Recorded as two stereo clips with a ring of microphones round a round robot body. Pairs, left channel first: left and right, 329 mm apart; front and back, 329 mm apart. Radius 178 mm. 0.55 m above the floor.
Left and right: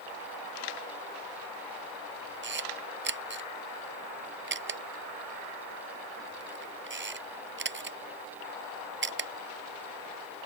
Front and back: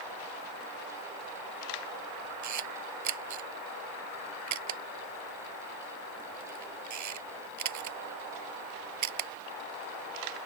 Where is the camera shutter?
145° right.